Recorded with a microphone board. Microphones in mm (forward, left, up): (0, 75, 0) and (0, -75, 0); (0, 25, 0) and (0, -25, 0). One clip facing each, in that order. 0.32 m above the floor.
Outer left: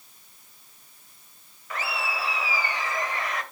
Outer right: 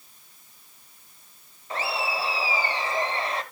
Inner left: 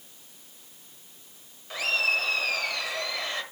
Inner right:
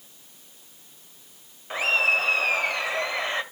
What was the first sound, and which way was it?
Laughter, 30° right (ahead or behind).